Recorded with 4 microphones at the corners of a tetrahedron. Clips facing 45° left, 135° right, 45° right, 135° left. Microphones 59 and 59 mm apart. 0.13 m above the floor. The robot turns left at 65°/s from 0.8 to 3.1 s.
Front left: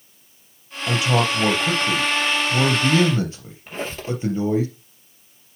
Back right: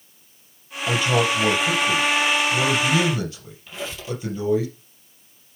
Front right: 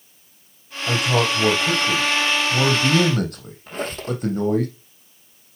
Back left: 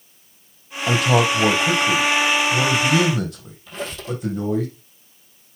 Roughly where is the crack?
No crack in this recording.